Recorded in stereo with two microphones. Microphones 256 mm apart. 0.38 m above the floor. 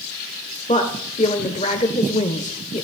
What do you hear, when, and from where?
0.7 s a woman speaking: 30° left (ahead or behind), 1.1 m